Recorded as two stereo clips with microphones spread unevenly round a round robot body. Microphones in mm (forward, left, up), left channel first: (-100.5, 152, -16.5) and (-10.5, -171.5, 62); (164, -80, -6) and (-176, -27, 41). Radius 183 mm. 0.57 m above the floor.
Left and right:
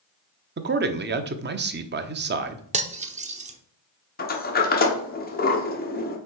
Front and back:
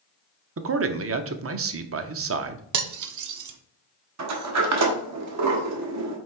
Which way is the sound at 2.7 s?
150° right.